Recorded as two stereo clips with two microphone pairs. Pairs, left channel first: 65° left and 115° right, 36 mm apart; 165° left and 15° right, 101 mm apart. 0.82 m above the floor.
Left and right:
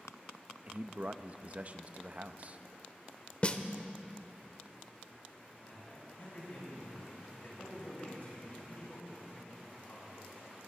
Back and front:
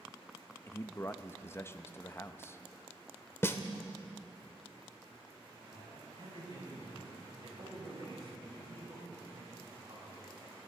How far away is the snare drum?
About 0.7 m.